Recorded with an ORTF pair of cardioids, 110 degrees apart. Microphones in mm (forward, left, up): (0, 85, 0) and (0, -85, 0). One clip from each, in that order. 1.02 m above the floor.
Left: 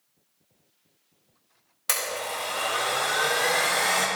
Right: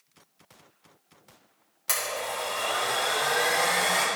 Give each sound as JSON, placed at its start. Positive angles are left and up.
{"t": 1.9, "sound": "a blender", "azimuth_deg": 20, "distance_m": 2.5}